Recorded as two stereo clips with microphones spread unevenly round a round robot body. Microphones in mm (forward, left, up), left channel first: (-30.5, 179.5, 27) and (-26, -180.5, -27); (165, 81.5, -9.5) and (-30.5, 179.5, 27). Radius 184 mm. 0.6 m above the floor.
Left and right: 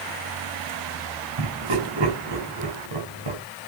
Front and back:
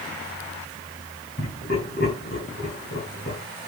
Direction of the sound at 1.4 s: 85° right.